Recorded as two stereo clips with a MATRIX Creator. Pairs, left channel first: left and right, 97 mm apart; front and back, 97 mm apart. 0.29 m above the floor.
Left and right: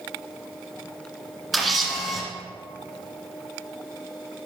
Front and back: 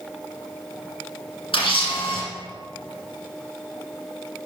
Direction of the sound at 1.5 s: Straight ahead.